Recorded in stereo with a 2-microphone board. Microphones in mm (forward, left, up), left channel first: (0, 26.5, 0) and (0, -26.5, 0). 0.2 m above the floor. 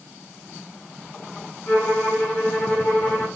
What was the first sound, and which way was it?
A violin, 35° left (ahead or behind).